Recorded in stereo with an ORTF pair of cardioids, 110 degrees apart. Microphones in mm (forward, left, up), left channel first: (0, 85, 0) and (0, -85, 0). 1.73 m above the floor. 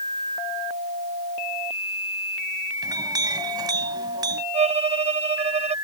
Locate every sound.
2.8 s a clink: 25° right
4.5 s a violin: 40° right